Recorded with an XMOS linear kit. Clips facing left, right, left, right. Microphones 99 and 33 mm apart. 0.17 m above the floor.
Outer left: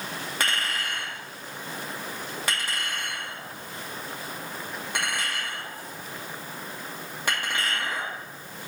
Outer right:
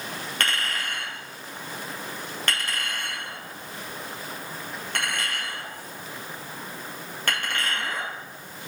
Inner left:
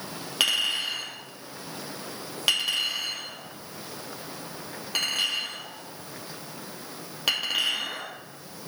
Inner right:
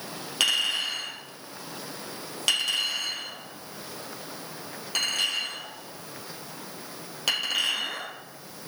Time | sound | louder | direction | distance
0.4 | a clink | even, even | 10° left (ahead or behind) | 3 m